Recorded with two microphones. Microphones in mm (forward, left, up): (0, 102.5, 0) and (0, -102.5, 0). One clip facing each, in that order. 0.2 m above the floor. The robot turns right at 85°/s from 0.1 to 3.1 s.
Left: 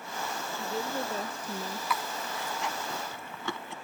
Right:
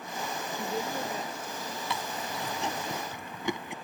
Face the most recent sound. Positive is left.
turn(degrees=-15)  # may be behind; listen again after turning